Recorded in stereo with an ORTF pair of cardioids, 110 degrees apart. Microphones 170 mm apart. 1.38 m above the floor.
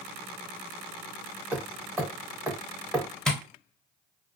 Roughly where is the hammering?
Ahead.